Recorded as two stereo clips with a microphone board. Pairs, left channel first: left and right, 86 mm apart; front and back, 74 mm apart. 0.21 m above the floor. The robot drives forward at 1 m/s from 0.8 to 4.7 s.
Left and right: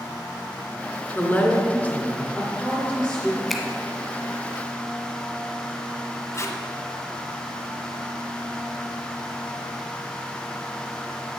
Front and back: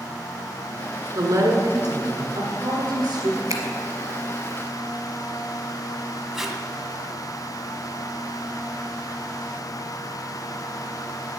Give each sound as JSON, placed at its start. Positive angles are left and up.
{"t": 1.1, "sound": "a woman speaking", "azimuth_deg": 155, "distance_m": 1.9}
{"t": 3.5, "sound": "a finger snap", "azimuth_deg": 180, "distance_m": 1.3}
{"t": 6.3, "sound": "tape being pulled", "azimuth_deg": 100, "distance_m": 1.2}